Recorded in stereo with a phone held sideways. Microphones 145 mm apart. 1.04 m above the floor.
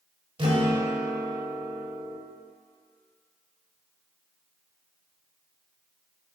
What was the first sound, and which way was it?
A guitar, 40° right (ahead or behind).